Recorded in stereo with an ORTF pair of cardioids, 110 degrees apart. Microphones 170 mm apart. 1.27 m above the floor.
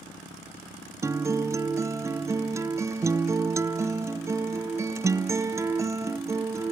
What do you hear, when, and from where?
1.0 s a guitar: 15° right, 0.7 m